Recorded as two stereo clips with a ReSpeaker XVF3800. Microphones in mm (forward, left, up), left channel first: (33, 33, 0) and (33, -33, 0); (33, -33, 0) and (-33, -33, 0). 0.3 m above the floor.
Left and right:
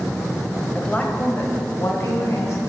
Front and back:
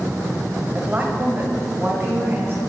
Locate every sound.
0.8 s a woman speaking: 145° left, 1.0 m; by 2.6 s 130° left, 2.5 m